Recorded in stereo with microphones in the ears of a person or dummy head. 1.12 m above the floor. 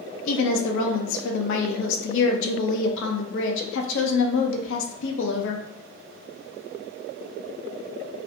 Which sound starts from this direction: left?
A woman speaking, at 0.2 s.